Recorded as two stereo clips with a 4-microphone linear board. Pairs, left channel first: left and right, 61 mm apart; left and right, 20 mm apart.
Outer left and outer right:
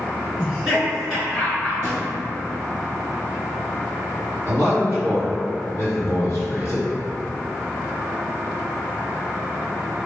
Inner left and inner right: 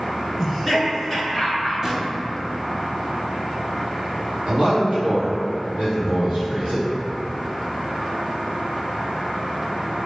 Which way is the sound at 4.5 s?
35° right (ahead or behind).